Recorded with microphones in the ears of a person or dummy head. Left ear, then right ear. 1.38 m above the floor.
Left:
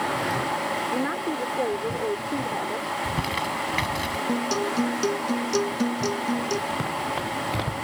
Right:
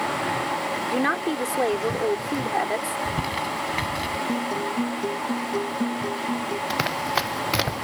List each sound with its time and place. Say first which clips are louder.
0.9 s a woman speaking: right 3 dB; 70° right (ahead or behind)
2.9 s crumpling: even; 10° left (ahead or behind)
4.3 s a guitar: left 1 dB; 75° left (ahead or behind)
6.7 s running footsteps: right 3 dB; 65° right (ahead or behind); by 7.8 s 75° right (ahead or behind)